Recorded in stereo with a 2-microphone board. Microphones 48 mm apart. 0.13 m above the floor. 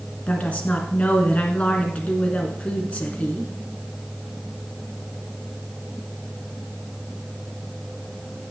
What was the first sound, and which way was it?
A woman speaking, 30° left (ahead or behind).